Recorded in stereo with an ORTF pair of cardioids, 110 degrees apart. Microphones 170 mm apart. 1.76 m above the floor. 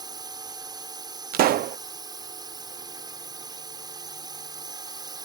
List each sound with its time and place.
0.0 s a drone: 25° right
1.3 s a pop: 65° right